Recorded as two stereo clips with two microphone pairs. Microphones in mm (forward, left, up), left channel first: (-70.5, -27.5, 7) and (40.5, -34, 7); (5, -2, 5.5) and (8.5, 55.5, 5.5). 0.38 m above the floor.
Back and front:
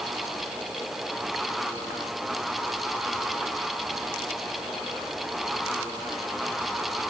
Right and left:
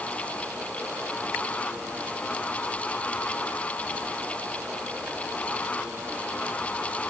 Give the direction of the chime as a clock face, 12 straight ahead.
No chime in this recording.